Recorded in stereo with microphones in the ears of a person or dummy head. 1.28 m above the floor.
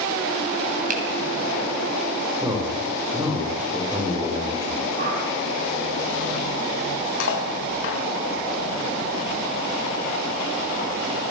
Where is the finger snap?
45° right (ahead or behind), 4 m.